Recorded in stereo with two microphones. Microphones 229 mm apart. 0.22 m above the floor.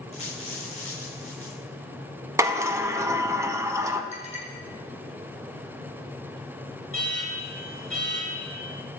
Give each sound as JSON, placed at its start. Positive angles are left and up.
{"t": 0.1, "sound": "a dropped coin", "side_deg": 65, "distance_m": 5.5}
{"t": 2.4, "sound": "a sliding door", "side_deg": -15, "distance_m": 0.9}
{"t": 4.1, "sound": "a clink", "side_deg": -30, "distance_m": 4.5}
{"t": 6.9, "sound": "an alarm", "side_deg": 65, "distance_m": 4.0}